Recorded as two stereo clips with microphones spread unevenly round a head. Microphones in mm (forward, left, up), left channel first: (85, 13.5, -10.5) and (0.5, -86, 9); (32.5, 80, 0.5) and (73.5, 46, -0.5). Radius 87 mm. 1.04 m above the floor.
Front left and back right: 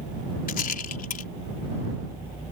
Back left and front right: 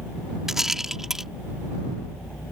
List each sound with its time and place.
0.5 s a rattle: 45° left